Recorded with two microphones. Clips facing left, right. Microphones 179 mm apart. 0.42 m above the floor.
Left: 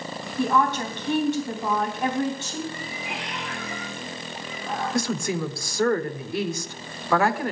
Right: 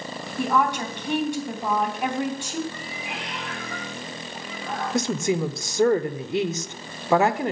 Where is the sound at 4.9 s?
20° right (ahead or behind), 0.8 m.